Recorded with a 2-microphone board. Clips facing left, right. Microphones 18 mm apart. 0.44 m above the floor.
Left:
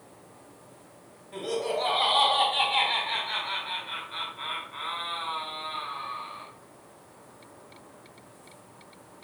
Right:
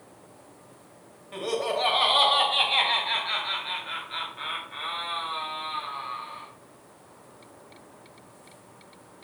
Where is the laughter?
60° right (ahead or behind), 2.5 m; by 6.5 s 50° right (ahead or behind), 4 m.